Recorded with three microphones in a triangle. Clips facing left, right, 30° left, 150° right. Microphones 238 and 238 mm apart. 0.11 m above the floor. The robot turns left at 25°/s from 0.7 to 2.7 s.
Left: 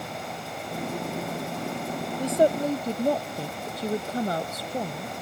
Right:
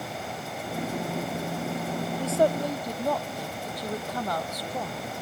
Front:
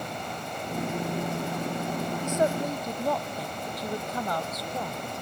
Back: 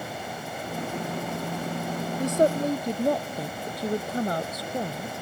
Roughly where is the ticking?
I don't hear ticking.